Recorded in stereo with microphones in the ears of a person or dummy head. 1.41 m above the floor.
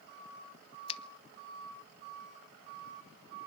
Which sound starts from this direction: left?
A finger snap, at 0.9 s.